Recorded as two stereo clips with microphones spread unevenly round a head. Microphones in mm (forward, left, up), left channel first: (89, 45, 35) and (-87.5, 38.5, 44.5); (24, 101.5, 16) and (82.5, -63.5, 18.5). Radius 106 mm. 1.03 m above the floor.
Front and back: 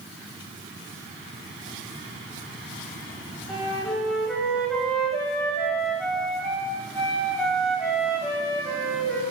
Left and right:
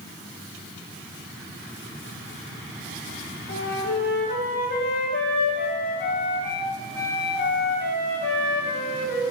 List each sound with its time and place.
3.5 s a flute: 90° left, 4.5 m